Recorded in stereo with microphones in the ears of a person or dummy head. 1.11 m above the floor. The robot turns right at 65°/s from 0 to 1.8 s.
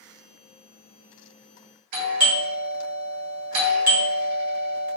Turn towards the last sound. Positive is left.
turn(degrees=-45)  # may be behind; listen again after turning